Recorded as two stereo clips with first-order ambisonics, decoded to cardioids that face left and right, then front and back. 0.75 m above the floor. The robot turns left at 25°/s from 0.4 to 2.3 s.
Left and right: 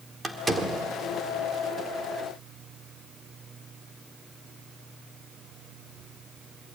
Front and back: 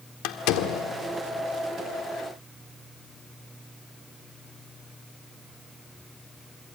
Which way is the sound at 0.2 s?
10° right.